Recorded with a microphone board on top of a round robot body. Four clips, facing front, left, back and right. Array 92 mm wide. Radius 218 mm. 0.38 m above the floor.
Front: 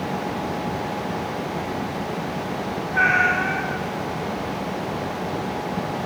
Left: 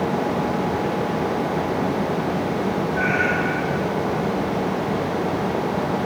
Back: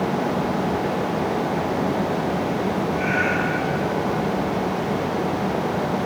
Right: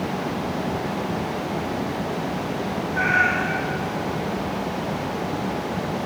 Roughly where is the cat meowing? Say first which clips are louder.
Right 4 dB, front 2 dB; ahead.